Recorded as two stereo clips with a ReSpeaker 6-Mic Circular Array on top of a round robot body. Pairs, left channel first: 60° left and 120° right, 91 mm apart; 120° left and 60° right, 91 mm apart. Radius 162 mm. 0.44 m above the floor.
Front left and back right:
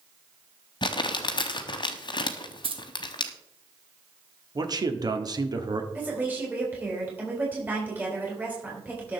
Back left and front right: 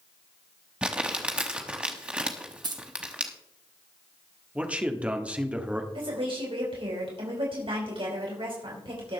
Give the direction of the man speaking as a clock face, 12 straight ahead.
4 o'clock.